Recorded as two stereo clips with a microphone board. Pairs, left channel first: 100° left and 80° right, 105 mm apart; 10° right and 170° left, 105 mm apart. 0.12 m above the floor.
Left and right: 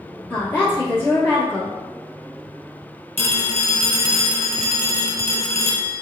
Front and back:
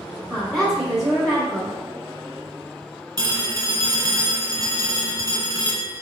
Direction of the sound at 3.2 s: 155° left.